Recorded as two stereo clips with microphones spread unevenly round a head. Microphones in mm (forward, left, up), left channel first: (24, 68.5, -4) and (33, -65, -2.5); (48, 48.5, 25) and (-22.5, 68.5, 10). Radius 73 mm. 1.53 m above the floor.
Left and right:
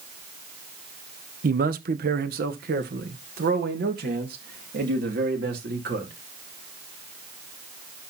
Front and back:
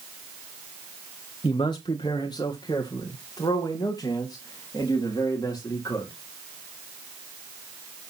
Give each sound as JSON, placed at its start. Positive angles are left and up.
{"t": 1.4, "sound": "a man speaking", "azimuth_deg": -70, "distance_m": 1.0}